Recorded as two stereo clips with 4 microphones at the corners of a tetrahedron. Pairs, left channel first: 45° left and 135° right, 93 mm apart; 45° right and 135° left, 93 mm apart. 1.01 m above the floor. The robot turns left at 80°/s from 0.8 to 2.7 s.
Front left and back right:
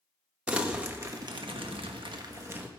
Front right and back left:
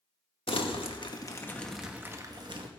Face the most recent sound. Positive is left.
turn(degrees=150)